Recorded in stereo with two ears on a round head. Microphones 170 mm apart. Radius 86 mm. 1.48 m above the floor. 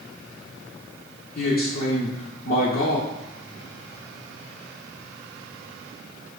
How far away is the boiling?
I don't hear boiling.